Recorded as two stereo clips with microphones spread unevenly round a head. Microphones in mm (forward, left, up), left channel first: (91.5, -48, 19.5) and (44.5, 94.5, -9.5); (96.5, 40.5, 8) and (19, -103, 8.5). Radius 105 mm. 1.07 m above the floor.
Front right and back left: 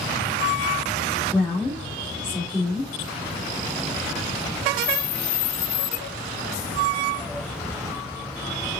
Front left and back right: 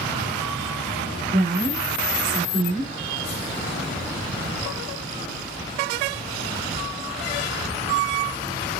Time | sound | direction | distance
1.3 | a woman speaking | 160° right | 2 m